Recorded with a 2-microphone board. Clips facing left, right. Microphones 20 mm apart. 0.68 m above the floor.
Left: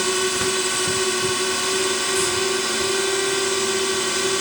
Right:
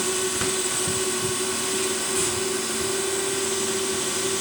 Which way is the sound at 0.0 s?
25° left (ahead or behind).